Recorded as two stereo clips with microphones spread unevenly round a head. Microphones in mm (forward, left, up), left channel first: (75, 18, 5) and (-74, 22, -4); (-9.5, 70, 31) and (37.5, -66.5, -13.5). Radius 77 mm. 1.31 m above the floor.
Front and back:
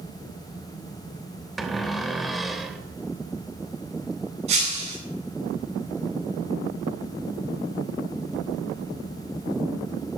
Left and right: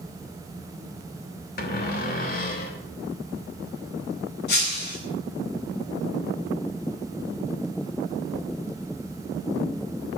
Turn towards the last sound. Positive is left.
turn(degrees=130)